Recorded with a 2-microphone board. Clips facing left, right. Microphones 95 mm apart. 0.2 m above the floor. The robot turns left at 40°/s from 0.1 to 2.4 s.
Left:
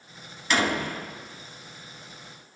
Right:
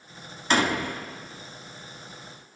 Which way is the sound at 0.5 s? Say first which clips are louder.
Right 1 dB; 35° right (ahead or behind).